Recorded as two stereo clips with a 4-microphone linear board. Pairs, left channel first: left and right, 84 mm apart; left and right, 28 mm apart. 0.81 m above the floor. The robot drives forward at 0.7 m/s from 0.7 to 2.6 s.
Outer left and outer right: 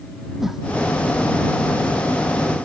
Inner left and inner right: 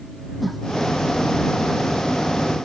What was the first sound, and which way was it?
A whoosh, 5° right (ahead or behind).